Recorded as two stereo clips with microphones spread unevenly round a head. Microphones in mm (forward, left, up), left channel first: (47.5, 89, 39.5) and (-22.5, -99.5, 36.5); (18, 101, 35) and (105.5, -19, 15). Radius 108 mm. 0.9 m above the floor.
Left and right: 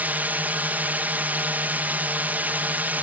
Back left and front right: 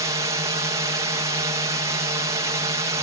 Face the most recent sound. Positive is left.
turn(degrees=-40)